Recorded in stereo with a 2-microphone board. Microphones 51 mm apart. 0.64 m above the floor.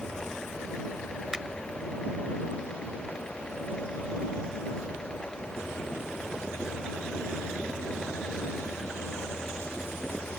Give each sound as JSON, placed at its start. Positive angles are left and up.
{"t": 1.3, "sound": "a finger snap", "side_deg": -10}